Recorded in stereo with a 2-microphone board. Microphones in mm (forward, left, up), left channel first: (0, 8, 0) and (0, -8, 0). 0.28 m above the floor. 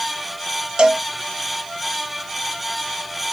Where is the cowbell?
65° right (ahead or behind), 0.9 m.